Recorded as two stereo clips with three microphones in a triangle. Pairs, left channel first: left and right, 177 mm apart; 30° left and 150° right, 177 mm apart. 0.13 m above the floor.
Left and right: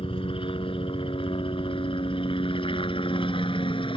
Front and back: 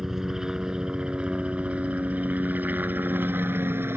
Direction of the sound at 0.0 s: 125° left.